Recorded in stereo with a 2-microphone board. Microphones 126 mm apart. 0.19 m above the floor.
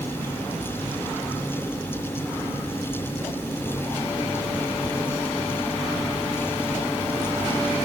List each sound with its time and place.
Only background noise.